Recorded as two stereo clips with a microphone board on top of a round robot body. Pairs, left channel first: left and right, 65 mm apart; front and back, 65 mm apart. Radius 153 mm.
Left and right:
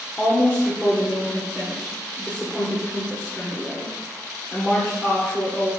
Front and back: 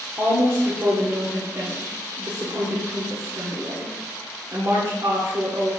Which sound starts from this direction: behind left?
A woman speaking, at 0.2 s.